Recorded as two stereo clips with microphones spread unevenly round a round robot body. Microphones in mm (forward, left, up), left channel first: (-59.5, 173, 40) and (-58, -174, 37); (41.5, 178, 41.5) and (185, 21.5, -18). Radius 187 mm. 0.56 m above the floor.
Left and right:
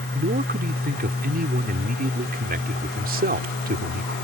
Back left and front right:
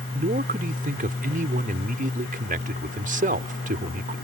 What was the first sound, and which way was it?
A man speaking, 30° right.